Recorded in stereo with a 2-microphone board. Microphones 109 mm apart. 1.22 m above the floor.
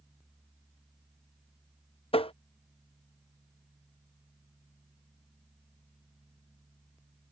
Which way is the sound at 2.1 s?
60° left (ahead or behind).